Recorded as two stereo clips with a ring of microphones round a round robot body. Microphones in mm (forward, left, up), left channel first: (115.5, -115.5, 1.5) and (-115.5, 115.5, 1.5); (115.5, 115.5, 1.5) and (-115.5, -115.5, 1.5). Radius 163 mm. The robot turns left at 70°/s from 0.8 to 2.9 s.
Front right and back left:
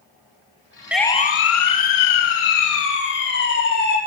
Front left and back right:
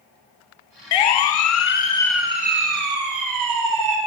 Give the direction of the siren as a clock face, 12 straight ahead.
10 o'clock.